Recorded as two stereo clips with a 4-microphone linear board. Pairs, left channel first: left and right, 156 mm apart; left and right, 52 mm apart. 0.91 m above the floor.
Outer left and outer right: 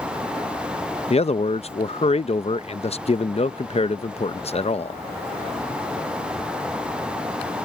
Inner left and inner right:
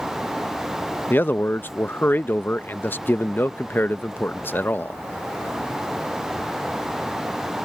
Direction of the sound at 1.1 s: 40° left (ahead or behind).